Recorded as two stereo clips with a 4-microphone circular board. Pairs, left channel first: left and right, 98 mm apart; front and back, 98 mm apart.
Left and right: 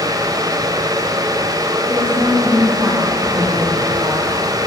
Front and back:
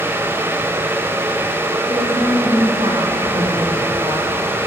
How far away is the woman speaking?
About 8.5 m.